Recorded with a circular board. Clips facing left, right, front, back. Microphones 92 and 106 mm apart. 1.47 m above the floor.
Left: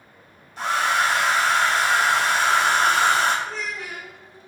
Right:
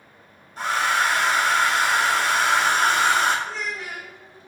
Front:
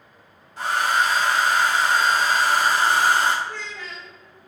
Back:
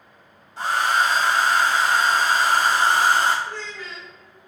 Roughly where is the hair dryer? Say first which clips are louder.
Left 1 dB, back 1 dB; behind right.